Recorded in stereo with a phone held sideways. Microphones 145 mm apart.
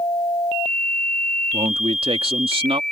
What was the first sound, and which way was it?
A man speaking, 40° right (ahead or behind).